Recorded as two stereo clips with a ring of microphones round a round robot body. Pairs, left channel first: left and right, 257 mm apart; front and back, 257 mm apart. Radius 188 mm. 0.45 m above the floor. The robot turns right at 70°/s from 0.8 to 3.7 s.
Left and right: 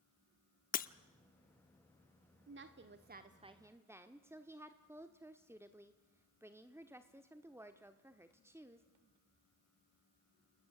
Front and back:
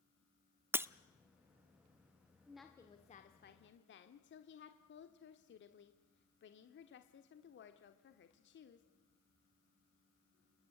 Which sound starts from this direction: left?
Breaking glass, at 0.7 s.